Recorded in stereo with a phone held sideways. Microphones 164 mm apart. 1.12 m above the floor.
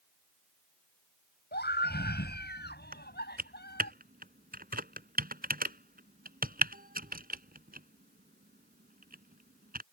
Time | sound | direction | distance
1.5 | a scream | 85° left | ?
2.9 | typing on a keyboard | 60° right (ahead or behind) | ?